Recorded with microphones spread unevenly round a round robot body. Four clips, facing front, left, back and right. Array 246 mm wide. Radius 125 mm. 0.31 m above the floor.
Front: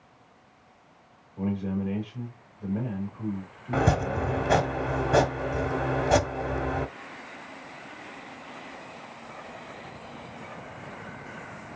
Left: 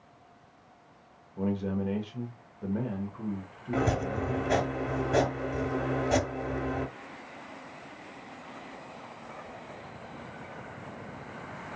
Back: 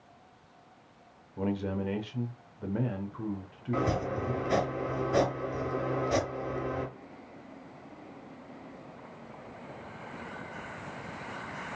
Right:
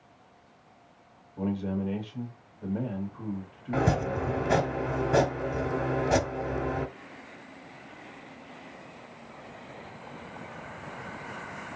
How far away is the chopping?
About 0.9 m.